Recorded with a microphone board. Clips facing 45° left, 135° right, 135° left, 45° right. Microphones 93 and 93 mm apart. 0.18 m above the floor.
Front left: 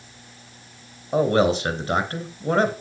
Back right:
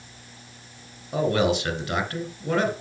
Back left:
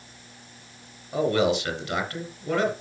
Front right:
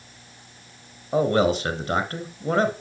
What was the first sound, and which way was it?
A man speaking, 5° right.